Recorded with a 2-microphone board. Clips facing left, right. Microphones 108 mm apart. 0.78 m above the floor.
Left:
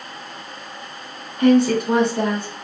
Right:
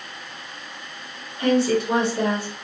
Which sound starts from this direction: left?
A woman speaking, at 1.4 s.